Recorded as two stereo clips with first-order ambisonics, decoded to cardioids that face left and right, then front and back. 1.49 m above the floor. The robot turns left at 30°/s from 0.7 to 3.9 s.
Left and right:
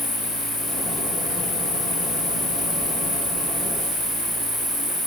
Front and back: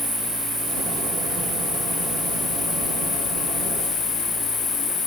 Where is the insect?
145° left, 2.5 m; by 5.1 s 50° left, 2.5 m.